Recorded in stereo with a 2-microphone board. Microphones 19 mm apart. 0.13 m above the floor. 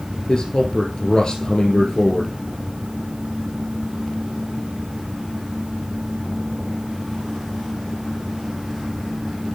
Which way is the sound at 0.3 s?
35° left (ahead or behind).